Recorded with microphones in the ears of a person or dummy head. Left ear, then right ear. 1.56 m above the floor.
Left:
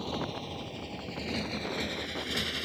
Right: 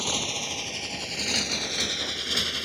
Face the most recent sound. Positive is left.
turn(degrees=-15)  # may be behind; listen again after turning